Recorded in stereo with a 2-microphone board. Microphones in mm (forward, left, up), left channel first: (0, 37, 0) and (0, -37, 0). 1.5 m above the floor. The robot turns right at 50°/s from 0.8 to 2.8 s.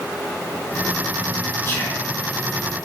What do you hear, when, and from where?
1.6 s whispering: 35° left (ahead or behind), 1.2 m; by 2.1 s 15° left (ahead or behind), 1.2 m